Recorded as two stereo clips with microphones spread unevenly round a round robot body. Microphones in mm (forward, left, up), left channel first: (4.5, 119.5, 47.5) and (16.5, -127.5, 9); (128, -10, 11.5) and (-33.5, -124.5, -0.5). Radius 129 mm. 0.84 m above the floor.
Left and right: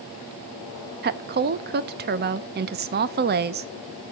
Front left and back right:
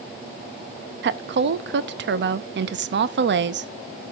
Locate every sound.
1.0 s a woman speaking: 130° right, 0.7 m